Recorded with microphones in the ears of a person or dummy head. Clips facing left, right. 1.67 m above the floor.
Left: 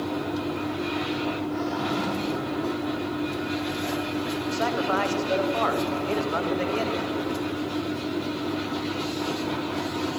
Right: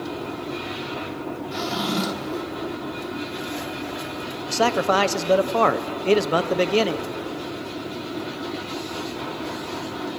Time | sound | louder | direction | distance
1.5 | a drawer | right 1 dB | 55° right (ahead or behind) | 1.8 m
4.5 | a man speaking | right 7 dB | 70° right (ahead or behind) | 1.2 m